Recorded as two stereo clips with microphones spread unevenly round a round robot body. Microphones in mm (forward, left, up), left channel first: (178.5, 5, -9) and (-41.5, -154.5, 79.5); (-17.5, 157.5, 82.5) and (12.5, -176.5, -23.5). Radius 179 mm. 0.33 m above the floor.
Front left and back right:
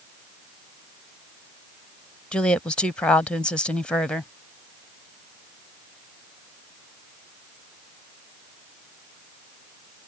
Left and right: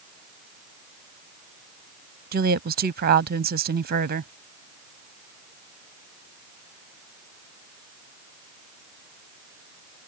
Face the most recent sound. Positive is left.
turn(degrees=-40)